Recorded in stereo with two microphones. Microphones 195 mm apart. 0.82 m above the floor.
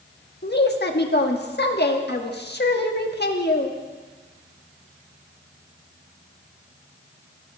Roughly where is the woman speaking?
Left.